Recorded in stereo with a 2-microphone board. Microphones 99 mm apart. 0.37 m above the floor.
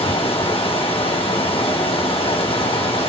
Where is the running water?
65° left (ahead or behind), 1.4 m.